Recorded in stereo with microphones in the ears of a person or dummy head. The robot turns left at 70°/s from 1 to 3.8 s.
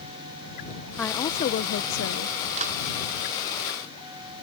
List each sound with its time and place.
1.0 s a woman speaking: 170° left; by 2.4 s 75° left
2.6 s a clap: 40° right (ahead or behind); by 2.8 s 50° right (ahead or behind)